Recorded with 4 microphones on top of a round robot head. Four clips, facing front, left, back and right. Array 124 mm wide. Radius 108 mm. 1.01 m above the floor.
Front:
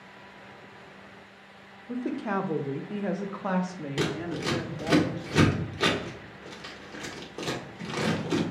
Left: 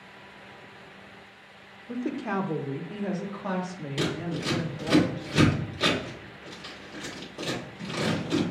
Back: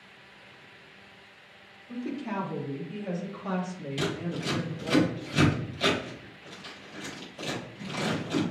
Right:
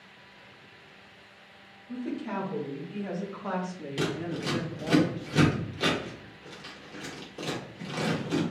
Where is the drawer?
I don't hear a drawer.